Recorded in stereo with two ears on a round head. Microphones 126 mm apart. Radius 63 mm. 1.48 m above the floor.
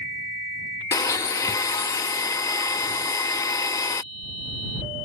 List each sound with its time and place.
0.9 s a blender: 25° left (ahead or behind)